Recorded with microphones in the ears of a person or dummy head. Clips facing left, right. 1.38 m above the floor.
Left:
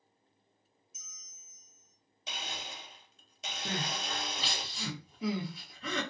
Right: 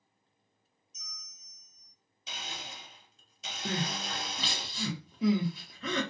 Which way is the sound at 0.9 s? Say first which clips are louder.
Right 9 dB; 5° left (ahead or behind).